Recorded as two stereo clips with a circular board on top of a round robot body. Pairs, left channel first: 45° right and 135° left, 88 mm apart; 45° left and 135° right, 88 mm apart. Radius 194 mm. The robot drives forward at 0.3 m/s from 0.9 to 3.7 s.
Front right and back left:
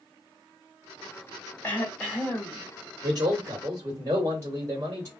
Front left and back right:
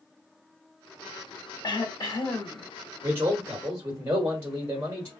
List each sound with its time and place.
1.6 s throat clearing: 25° left, 1.6 m; by 2.6 s 30° left, 1.4 m
3.0 s a man speaking: 170° left, 1.8 m